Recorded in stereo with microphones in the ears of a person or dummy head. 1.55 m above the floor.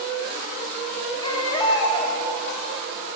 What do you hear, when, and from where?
1.2 s a baby crying: 20° left (ahead or behind), 0.7 m